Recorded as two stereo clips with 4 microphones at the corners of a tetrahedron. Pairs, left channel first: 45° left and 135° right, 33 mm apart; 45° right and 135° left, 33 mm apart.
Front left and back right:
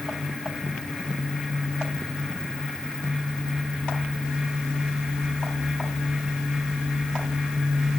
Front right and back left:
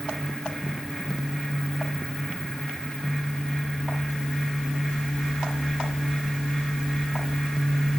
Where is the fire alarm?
No fire alarm in this recording.